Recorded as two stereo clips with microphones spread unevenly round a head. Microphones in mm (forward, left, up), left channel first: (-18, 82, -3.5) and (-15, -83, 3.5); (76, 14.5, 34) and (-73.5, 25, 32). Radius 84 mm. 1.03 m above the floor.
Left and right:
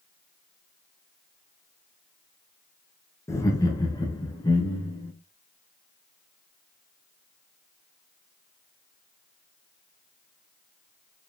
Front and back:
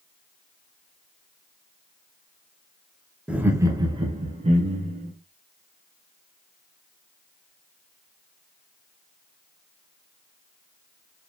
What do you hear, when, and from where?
3.3 s laughter: 105° left, 0.7 m; by 5.1 s 155° left, 1.3 m